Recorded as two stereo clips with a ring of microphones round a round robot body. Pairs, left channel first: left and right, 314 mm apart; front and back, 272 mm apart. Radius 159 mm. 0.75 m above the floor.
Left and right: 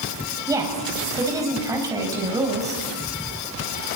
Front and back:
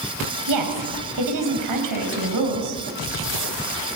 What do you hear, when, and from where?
0.5 s a woman speaking: 170° right, 5 m